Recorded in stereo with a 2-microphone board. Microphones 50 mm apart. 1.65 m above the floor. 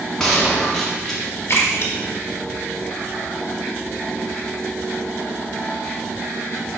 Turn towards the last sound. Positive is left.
turn(degrees=50)  # may be behind; listen again after turning